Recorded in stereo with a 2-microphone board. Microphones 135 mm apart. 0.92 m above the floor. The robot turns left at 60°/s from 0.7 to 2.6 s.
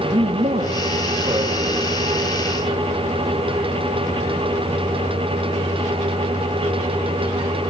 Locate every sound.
0.1 s a man speaking: 100° right, 1.5 m; by 2.0 s 175° right, 1.5 m